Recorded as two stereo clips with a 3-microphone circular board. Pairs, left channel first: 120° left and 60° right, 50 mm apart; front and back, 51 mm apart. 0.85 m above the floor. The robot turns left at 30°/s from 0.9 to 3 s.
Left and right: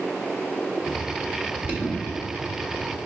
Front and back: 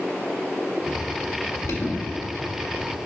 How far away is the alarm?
About 1.6 m.